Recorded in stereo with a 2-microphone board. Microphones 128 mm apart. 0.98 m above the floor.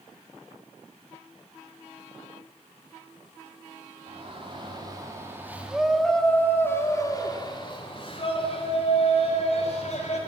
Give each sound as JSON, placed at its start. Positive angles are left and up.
{"t": 4.1, "sound": "a shout", "side_deg": -45, "distance_m": 2.0}